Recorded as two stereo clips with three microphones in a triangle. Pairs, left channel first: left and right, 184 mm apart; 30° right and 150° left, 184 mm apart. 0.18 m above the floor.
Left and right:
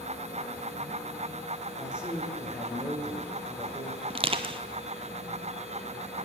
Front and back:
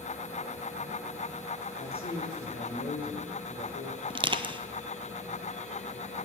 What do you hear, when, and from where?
1.8 s a man speaking: 5° right, 4 m
4.1 s crushing: 145° right, 0.8 m